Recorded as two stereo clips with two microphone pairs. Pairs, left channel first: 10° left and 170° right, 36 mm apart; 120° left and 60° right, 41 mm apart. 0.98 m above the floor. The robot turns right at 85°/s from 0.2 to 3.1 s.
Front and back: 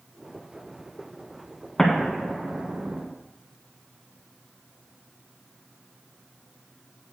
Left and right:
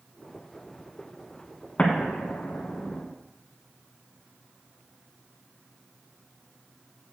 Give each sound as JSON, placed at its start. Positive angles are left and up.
{"t": 1.8, "sound": "an explosion", "azimuth_deg": 80, "distance_m": 2.5}